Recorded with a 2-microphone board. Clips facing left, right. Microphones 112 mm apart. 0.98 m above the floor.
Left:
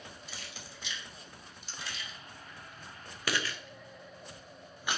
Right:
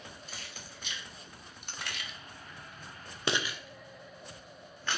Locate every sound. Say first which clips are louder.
0.3 s keys jangling: even; 45° right (ahead or behind), 1.8 m; by 5.0 s 15° left (ahead or behind), 1.5 m